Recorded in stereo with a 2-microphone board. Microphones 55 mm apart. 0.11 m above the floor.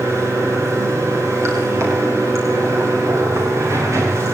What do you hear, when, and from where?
0.0 s running water: 65° right (ahead or behind), 9.5 m